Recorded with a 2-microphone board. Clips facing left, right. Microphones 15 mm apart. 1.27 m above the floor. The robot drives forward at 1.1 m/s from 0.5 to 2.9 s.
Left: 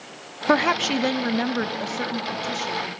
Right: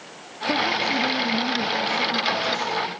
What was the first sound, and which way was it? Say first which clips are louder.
A woman speaking: left 2 dB; 85° left.